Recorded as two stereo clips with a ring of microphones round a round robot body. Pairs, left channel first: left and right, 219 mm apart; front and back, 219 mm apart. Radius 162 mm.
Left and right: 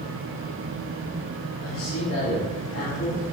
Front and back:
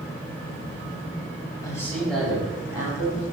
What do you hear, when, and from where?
1.6 s a man speaking: 75° left, 2.5 m; by 3.2 s 110° left, 3.5 m